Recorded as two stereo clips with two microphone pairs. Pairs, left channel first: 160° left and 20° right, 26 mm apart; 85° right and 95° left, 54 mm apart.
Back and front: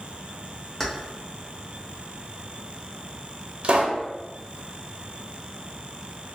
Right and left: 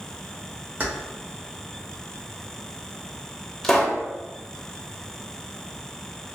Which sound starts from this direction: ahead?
A pop, at 3.6 s.